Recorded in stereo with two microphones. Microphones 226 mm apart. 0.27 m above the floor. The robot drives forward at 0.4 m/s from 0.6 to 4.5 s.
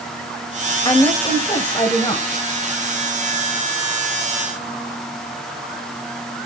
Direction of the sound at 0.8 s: 20° left (ahead or behind).